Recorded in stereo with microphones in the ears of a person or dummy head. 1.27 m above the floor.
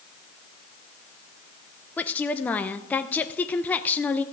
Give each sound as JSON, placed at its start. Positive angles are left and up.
{"t": 2.0, "sound": "a woman speaking", "side_deg": 10, "distance_m": 0.6}